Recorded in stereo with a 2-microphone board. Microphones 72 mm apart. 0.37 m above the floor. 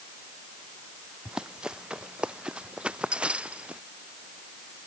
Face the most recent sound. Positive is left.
turn(degrees=-20)  # may be behind; listen again after turning